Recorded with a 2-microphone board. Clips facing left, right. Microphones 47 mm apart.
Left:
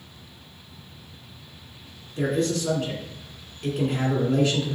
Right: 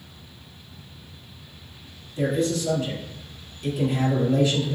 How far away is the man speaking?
About 1.7 m.